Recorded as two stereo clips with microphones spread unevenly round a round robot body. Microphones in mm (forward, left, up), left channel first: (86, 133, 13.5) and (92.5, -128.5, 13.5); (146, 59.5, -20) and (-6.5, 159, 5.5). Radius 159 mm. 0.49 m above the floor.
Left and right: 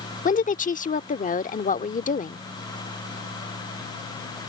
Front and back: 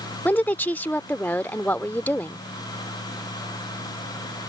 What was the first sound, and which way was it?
A woman speaking, 40° left.